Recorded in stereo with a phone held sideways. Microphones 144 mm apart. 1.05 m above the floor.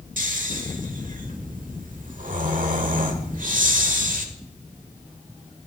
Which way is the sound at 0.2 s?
65° right (ahead or behind).